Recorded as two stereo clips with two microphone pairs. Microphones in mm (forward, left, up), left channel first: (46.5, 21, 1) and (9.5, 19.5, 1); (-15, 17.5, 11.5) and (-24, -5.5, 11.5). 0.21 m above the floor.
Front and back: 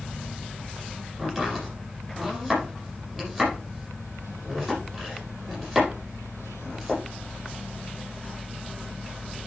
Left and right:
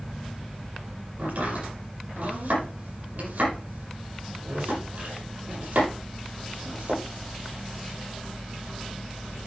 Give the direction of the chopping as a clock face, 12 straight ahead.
3 o'clock.